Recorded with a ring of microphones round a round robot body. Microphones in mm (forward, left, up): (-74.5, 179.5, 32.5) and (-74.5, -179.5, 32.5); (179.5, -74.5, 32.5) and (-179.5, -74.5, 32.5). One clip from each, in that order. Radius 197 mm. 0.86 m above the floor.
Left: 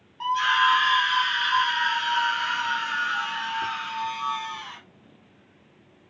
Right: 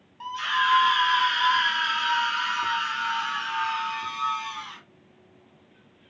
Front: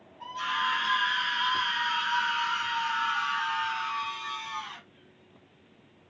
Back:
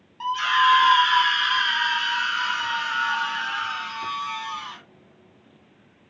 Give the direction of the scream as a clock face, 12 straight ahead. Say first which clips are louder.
Left 4 dB, back 10 dB; 7 o'clock.